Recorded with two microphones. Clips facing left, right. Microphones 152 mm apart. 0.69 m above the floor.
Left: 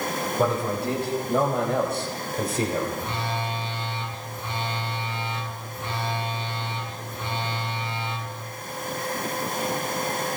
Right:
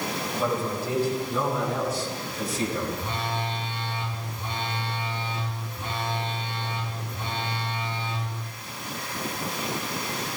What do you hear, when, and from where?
0.4 s a man speaking: 65° left (ahead or behind), 4.5 m; by 2.9 s 55° left (ahead or behind), 3.5 m
3.0 s a phone buzzing: 25° right (ahead or behind), 5 m